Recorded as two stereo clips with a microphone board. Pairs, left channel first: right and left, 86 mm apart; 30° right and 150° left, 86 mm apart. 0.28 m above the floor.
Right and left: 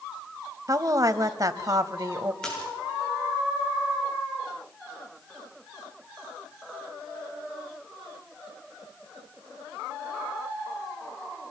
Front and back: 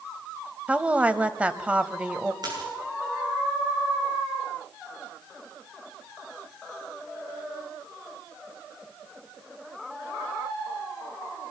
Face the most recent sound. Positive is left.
turn(degrees=-170)